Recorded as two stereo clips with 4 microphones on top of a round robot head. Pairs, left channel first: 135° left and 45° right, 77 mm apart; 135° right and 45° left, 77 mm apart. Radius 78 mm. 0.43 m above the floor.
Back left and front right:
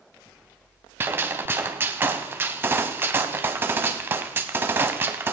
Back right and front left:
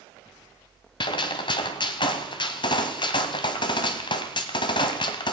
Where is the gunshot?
110° right, 0.9 m.